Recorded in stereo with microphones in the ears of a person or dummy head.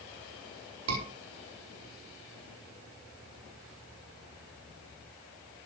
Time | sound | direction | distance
0.9 | a scream | 85° right | 4.5 m